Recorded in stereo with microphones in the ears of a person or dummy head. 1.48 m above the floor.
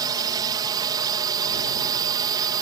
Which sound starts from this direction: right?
A drone, at 0.0 s.